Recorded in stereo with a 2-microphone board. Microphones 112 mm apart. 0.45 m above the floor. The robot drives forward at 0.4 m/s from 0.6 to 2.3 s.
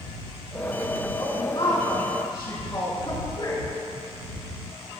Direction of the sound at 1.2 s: 45° left (ahead or behind).